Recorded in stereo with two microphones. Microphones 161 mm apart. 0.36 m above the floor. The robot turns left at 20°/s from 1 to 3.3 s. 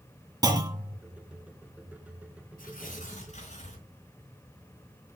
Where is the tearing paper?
60° left (ahead or behind), 4 m; by 3.9 s 50° left (ahead or behind), 4 m.